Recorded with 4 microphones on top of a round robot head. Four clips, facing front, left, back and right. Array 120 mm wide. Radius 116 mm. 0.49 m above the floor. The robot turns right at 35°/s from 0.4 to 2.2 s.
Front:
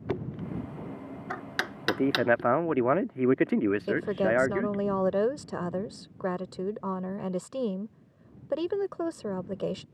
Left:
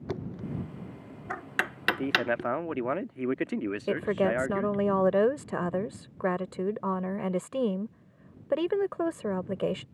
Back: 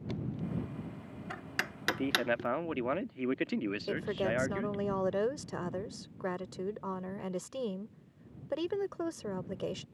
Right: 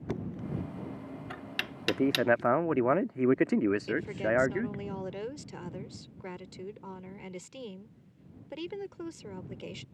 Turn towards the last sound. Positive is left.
turn(degrees=65)